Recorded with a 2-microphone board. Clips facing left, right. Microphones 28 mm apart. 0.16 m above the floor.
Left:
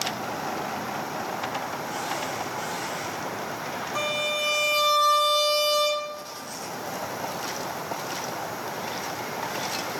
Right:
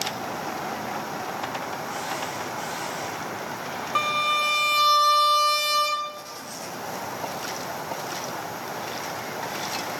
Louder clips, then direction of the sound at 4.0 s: Right 5 dB; 45° right (ahead or behind).